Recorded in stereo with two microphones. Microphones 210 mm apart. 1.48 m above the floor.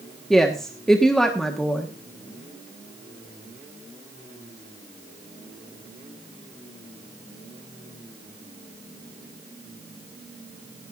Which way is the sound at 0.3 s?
5° left (ahead or behind).